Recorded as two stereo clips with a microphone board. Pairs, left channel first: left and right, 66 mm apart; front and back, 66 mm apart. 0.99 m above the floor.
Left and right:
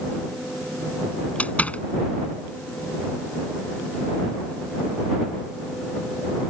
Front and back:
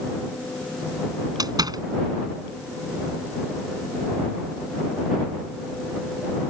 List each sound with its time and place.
1.4 s a door slam: 160° left